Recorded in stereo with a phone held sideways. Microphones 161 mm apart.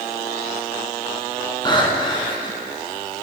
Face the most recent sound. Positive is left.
turn(degrees=30)  # may be behind; listen again after turning